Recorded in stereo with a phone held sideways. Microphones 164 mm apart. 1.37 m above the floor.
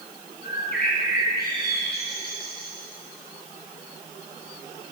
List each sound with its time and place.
0.4 s a bird: 75° left (ahead or behind), 5 m